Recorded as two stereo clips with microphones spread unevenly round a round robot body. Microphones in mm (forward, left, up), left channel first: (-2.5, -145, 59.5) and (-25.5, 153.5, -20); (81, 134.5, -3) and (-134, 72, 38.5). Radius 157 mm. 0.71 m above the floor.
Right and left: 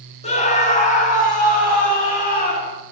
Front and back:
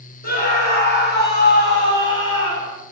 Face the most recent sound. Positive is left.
turn(degrees=-20)